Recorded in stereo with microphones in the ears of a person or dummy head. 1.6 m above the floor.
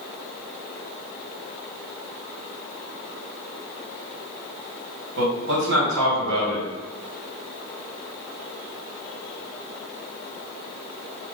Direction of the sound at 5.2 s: 65° right (ahead or behind).